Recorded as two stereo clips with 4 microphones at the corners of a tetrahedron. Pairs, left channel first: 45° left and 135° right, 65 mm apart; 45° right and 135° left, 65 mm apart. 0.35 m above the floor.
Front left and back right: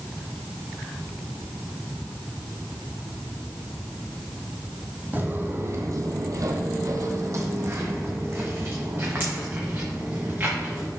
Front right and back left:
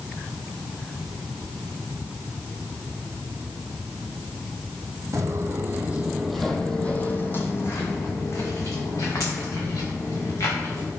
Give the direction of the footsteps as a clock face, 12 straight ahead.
6 o'clock.